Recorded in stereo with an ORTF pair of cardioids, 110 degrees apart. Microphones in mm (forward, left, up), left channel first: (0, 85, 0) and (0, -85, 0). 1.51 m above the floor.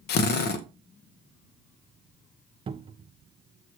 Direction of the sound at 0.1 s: 65° left.